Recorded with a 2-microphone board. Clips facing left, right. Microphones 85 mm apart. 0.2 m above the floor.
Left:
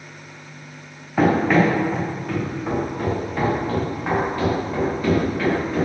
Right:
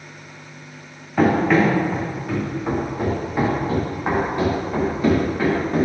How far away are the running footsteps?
About 3 m.